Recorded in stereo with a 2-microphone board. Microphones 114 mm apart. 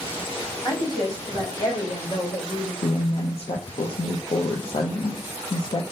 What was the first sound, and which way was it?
A woman speaking, 45° left (ahead or behind).